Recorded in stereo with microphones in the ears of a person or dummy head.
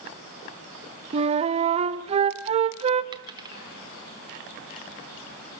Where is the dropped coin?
30° right (ahead or behind), 1.5 m.